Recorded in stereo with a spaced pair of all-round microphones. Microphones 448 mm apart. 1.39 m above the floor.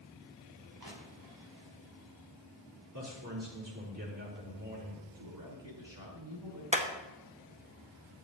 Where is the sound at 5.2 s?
50° right (ahead or behind), 6 m.